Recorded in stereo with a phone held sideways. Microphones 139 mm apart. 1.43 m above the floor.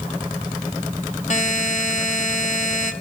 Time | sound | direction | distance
1.3 | a buzzer | 55° left (ahead or behind) | 2 m